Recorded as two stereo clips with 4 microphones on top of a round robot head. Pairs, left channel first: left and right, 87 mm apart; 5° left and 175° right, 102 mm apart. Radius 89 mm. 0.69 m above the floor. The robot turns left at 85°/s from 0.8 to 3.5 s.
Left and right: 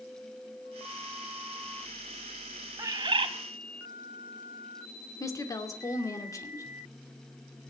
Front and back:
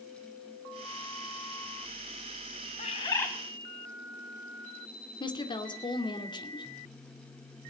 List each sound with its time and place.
2.8 s a bird: 35° right, 1.4 m; by 3.3 s 80° right, 1.4 m
5.2 s a woman speaking: 40° left, 2.5 m